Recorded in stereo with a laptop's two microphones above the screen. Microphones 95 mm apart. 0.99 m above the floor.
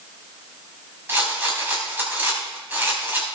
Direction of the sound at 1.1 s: 20° right (ahead or behind).